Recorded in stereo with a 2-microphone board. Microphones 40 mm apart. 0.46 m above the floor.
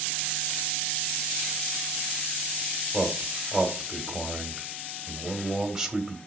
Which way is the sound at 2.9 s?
10° right (ahead or behind).